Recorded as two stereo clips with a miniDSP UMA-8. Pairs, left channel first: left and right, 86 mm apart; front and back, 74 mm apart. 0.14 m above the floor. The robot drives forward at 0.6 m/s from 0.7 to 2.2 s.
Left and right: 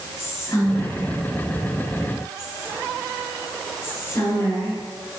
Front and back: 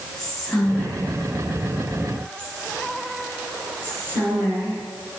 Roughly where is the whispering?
Left.